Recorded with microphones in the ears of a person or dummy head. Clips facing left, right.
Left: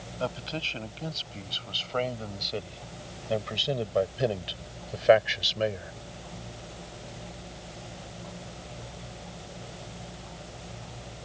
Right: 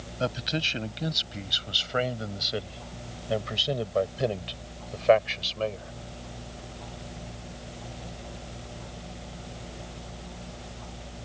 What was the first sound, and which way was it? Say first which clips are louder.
A man speaking: right 3 dB; 25° right (ahead or behind).